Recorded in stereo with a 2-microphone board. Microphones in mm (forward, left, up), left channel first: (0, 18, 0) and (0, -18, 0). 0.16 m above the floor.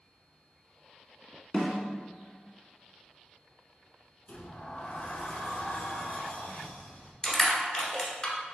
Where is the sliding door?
50° left (ahead or behind), 0.7 m.